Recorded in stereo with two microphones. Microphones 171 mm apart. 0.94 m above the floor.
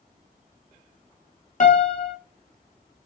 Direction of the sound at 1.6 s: 50° left (ahead or behind).